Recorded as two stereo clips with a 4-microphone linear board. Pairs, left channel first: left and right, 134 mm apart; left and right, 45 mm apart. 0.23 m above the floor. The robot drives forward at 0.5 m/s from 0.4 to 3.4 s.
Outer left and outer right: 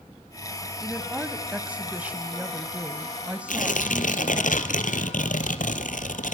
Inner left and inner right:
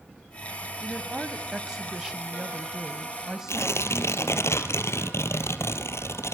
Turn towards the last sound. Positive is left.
turn(degrees=80)